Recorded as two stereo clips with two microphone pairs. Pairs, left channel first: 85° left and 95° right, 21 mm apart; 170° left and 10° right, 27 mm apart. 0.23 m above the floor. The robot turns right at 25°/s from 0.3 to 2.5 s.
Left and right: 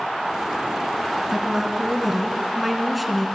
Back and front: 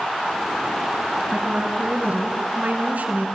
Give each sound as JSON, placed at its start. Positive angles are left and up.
{"t": 1.3, "sound": "a woman speaking", "azimuth_deg": -40, "distance_m": 2.5}